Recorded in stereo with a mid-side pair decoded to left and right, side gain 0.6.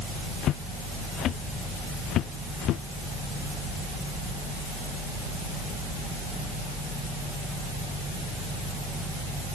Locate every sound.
0.4 s footsteps: 55° left; by 2.8 s 60° left